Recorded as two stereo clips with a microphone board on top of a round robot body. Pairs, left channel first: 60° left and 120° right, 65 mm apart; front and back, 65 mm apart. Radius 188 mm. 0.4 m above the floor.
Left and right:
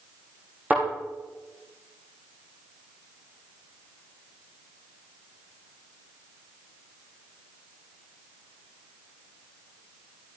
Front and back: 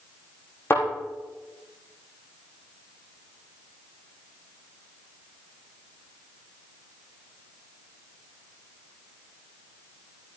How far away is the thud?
About 5.5 m.